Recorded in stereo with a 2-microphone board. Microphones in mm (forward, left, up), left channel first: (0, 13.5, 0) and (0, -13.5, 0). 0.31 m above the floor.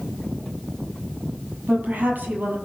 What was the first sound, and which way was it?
A woman speaking, 75° right (ahead or behind).